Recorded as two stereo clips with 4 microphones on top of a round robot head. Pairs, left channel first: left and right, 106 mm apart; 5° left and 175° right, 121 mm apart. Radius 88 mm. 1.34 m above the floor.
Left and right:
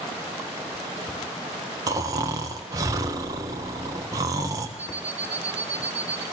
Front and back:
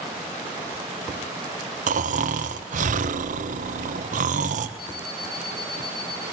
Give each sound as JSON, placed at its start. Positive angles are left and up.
{"t": 1.9, "sound": "snoring", "azimuth_deg": -155, "distance_m": 1.3}
{"t": 4.8, "sound": "an alarm clock", "azimuth_deg": -15, "distance_m": 7.0}